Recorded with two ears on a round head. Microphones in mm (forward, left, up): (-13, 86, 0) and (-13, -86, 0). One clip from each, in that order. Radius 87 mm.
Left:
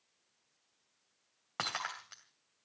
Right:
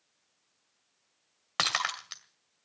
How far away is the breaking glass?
About 2 m.